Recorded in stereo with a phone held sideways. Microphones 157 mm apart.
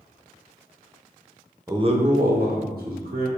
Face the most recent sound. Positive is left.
turn(degrees=-70)  # may be behind; listen again after turning